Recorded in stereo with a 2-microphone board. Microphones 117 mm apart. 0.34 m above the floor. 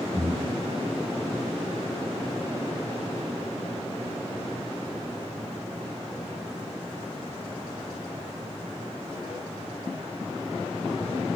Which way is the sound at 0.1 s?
5° left (ahead or behind).